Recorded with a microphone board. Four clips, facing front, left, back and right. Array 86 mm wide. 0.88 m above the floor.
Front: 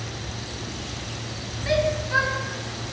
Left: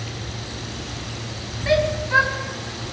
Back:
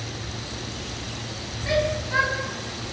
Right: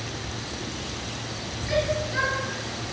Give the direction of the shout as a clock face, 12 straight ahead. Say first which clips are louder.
Left 6 dB, front 1 dB; 9 o'clock.